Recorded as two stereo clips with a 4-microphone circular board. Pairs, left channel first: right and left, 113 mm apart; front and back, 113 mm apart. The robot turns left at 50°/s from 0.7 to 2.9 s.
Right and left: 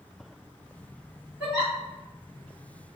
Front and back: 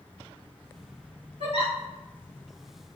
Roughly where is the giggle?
Behind.